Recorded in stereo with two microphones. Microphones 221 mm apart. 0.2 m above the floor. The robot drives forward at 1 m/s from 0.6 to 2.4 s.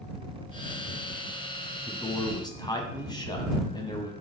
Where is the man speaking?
20° left (ahead or behind), 1.1 m.